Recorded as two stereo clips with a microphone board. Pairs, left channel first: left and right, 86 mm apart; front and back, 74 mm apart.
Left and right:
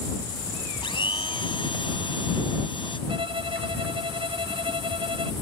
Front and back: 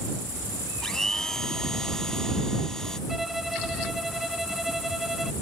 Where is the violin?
90° right.